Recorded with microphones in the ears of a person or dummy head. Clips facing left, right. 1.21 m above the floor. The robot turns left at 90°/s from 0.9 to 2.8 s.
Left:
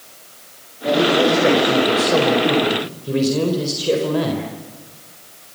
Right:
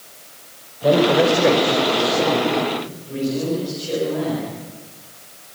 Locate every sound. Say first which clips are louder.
0.8 s a man speaking: right 1 dB; 125° right, 4.5 m; by 4.5 s 65° left, 4.5 m